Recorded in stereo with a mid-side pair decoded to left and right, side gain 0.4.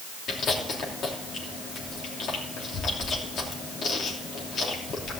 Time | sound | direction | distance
0.3 | chewing | 60° left | 3 m